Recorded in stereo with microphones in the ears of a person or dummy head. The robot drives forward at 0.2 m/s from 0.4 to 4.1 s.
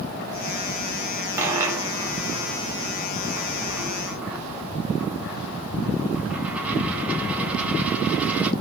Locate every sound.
1.4 s a dropped coin: 10° right (ahead or behind), 1.1 m